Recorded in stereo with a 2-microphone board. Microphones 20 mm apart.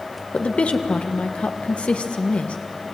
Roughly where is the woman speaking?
Left.